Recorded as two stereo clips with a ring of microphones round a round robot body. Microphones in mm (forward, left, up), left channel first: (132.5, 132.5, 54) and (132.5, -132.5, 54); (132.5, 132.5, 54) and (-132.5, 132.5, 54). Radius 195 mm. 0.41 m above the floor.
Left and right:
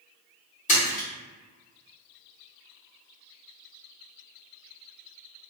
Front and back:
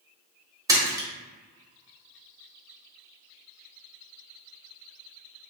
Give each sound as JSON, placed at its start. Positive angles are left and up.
{"t": 0.7, "sound": "a splash", "azimuth_deg": 115, "distance_m": 0.9}